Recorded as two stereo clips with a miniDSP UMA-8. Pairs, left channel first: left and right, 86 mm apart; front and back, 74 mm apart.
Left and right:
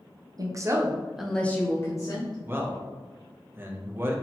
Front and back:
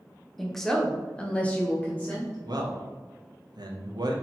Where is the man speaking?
155° right, 0.6 m.